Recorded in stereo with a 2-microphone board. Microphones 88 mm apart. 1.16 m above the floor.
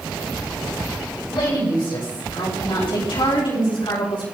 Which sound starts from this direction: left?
A woman speaking, at 1.3 s.